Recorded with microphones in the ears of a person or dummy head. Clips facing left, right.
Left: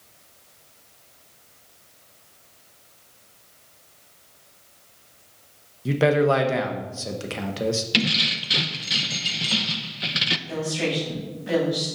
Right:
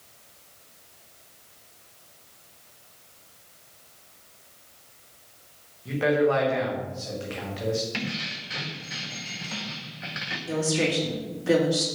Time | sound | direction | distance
5.8 | a man speaking | 60° left (ahead or behind) | 1.0 m
7.9 | keys jangling | 55° left (ahead or behind) | 0.5 m
10.5 | a woman speaking | 60° right (ahead or behind) | 3 m